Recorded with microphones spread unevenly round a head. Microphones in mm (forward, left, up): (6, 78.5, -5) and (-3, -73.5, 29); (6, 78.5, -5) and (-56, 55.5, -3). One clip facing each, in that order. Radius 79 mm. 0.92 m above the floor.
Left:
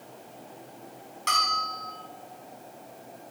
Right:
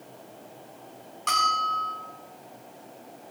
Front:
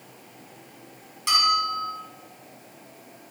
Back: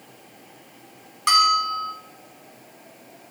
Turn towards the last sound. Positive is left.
turn(degrees=170)